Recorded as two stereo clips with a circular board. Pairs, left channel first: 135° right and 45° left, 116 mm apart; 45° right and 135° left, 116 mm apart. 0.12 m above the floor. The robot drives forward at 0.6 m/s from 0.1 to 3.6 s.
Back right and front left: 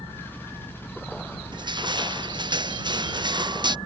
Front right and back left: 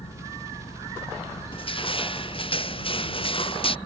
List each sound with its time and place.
0.0 s an engine running: 65° right; by 3.9 s 95° right
1.5 s crushing: 5° right